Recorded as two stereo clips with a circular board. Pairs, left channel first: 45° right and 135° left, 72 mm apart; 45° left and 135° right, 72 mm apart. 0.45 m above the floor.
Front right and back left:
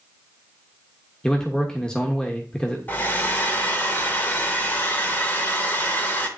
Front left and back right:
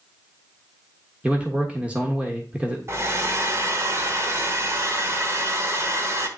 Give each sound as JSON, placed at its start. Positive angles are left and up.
{"t": 1.2, "sound": "a man speaking", "azimuth_deg": -100, "distance_m": 1.1}
{"t": 2.9, "sound": "a hair dryer", "azimuth_deg": -100, "distance_m": 1.1}